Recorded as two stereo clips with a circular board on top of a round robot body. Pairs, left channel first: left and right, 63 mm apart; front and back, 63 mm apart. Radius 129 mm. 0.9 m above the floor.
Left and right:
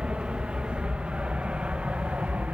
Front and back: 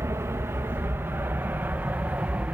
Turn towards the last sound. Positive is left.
turn(degrees=-140)